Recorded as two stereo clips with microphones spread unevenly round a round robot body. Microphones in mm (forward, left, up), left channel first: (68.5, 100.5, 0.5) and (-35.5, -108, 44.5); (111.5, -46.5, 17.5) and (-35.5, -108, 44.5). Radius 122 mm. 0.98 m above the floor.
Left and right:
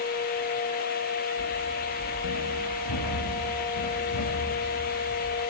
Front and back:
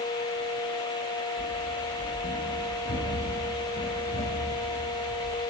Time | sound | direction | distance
1.4 | running footsteps | 80° left | 7.5 m